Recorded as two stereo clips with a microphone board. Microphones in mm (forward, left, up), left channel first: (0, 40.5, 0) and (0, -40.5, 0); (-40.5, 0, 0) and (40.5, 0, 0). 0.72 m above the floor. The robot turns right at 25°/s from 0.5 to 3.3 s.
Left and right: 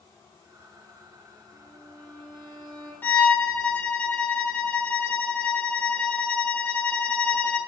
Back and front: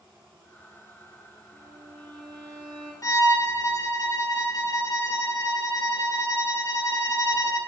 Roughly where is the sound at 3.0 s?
Behind left.